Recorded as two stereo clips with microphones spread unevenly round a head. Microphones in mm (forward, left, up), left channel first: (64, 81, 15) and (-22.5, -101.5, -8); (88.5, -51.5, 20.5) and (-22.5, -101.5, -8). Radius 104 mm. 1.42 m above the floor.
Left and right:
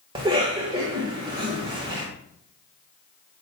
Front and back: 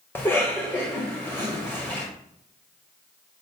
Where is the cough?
50° right, 1.8 m.